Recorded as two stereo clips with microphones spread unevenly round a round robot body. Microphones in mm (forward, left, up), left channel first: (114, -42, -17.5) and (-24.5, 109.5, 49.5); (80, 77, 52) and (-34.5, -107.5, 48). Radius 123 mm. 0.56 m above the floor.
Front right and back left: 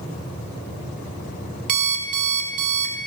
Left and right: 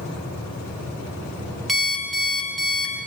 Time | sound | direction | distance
1.7 | an alarm clock | 150° left | 0.8 m